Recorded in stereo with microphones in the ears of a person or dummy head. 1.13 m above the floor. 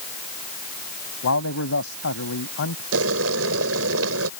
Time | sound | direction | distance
1.2 | a man speaking | 80° left | ?
2.9 | boiling | 70° right (ahead or behind) | ?